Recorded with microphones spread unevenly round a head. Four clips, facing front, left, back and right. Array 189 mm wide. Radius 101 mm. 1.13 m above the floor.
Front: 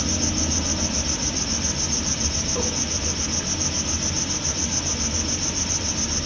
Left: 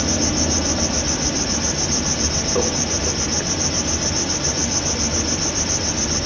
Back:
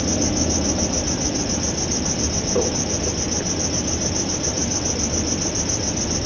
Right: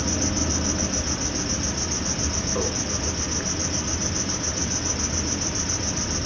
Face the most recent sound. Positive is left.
turn(degrees=155)